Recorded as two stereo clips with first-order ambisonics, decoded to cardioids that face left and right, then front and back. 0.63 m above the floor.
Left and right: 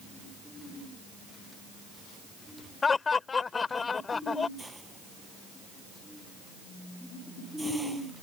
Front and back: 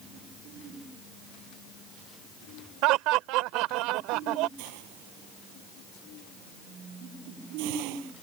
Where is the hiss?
175° right.